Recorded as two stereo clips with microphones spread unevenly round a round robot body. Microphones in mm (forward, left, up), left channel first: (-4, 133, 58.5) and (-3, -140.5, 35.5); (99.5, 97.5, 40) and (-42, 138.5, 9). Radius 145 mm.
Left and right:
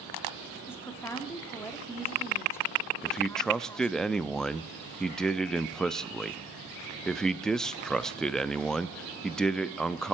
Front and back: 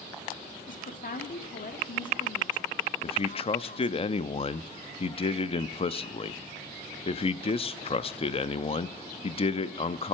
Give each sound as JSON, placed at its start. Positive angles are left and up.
{"t": 0.7, "sound": "a woman speaking", "azimuth_deg": 5, "distance_m": 1.6}
{"t": 3.0, "sound": "a man speaking", "azimuth_deg": -5, "distance_m": 0.5}